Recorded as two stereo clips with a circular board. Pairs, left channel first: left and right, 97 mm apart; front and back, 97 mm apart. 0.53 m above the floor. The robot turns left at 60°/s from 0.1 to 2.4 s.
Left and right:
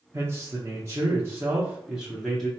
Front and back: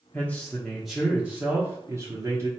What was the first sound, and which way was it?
A man speaking, 50° right.